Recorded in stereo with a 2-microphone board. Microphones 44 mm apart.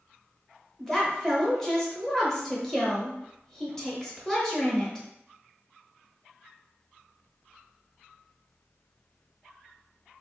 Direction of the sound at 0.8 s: 10° left (ahead or behind).